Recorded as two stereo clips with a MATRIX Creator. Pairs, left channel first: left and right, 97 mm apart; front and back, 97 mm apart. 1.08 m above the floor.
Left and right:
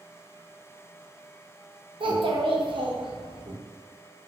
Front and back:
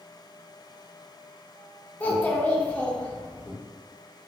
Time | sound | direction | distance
2.0 | a child speaking | 70° right | 0.6 m